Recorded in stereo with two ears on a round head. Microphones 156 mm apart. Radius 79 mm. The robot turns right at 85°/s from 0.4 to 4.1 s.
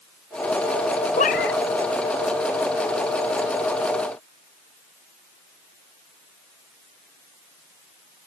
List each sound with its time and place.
1.2 s a cat meowing: 35° left; by 1.6 s 75° left